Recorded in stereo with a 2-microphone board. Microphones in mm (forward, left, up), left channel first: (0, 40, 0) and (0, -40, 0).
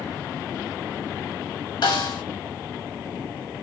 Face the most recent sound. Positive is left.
turn(degrees=70)  # may be behind; listen again after turning